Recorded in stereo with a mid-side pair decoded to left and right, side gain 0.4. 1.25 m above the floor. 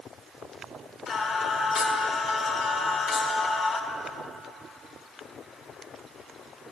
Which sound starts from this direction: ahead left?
Singing, at 1.1 s.